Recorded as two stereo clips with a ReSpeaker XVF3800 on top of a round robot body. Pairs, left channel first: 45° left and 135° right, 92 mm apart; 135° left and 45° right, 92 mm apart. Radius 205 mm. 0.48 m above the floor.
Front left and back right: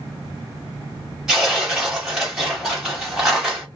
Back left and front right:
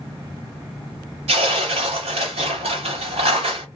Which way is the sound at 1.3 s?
50° right.